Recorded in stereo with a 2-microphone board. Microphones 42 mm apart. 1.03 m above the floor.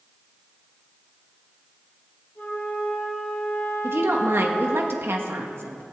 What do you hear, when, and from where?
2.4 s a flute: 50° left (ahead or behind), 3.5 m
3.8 s a woman speaking: 65° right (ahead or behind), 1.5 m